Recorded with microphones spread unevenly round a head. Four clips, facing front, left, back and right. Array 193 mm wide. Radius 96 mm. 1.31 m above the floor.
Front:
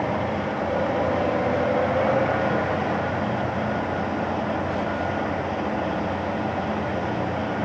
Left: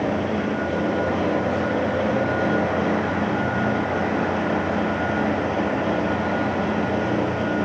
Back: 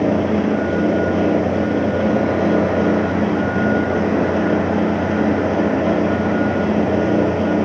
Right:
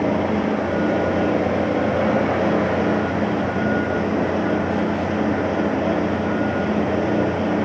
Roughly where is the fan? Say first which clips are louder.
Right 3 dB, back 8 dB; behind.